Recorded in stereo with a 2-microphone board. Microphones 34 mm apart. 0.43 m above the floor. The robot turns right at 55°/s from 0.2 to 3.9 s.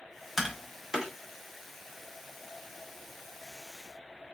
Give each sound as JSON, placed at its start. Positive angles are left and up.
{"t": 0.4, "sound": "tapping", "side_deg": -10, "distance_m": 0.7}